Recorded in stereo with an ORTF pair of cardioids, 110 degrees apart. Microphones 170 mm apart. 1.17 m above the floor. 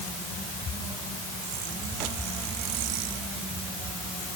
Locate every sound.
Only background noise.